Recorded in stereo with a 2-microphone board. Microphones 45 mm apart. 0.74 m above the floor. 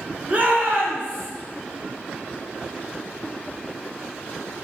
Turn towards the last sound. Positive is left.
turn(degrees=-65)  # may be behind; listen again after turning